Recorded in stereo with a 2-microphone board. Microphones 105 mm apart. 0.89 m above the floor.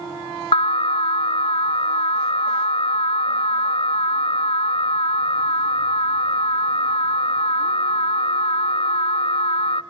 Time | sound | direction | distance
0.5 | an alarm | 60° left (ahead or behind) | 0.5 m